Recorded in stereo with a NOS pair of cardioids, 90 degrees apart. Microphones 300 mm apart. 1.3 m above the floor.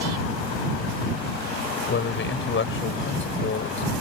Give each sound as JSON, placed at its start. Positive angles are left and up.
{"t": 1.9, "sound": "a man speaking", "azimuth_deg": 40}